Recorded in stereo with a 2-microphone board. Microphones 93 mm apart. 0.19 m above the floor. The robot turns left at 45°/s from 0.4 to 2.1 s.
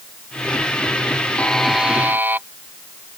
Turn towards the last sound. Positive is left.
turn(degrees=-20)